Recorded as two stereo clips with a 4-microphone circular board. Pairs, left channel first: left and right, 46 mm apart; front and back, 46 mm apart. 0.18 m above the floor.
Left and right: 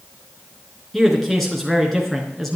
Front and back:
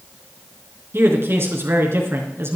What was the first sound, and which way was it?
A man speaking, 175° left.